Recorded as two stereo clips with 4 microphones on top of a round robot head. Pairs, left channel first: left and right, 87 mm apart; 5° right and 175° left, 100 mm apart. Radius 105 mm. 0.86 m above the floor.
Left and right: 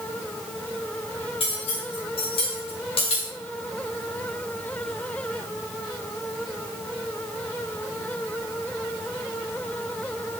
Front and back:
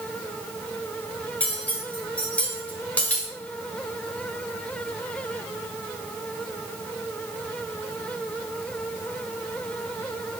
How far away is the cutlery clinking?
About 2.5 m.